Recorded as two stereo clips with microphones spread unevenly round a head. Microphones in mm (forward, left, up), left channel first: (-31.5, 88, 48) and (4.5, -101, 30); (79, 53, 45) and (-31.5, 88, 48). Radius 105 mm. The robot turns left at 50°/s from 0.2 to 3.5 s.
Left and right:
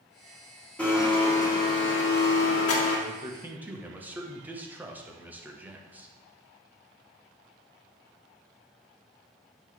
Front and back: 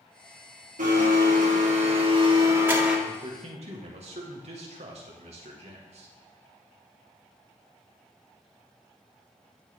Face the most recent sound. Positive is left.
turn(degrees=-160)